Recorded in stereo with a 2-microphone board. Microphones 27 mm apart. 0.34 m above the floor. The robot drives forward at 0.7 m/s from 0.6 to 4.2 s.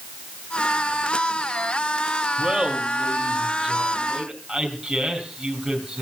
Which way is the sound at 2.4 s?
15° right (ahead or behind).